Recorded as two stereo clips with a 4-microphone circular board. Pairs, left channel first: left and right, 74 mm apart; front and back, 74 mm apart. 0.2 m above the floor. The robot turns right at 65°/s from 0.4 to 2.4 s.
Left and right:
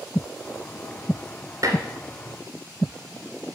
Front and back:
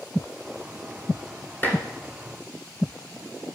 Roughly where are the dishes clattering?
Ahead right.